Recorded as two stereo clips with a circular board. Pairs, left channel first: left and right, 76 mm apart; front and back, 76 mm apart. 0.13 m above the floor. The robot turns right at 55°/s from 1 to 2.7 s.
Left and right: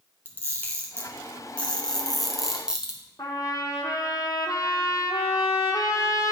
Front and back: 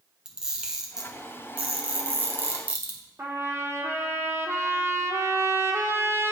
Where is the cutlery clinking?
I don't hear cutlery clinking.